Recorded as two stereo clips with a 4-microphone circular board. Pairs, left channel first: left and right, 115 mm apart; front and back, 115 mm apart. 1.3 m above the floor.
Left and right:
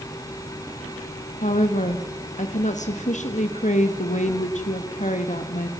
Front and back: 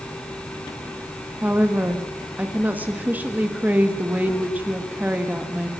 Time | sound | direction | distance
1.4 | a woman speaking | 105° left | 1.6 m